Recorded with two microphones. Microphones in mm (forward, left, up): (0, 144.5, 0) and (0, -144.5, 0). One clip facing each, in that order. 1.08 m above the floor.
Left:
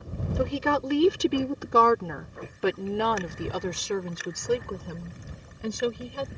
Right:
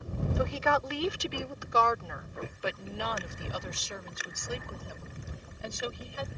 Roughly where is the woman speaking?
Left.